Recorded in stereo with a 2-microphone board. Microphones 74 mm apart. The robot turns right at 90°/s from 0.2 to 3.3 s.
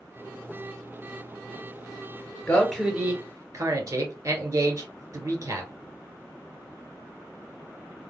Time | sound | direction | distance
2.5 | a man speaking | 30° left (ahead or behind) | 1.6 m